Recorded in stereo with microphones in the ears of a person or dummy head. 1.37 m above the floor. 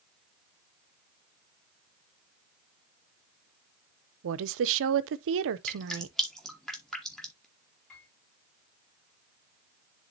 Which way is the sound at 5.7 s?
Centre (ahead or behind).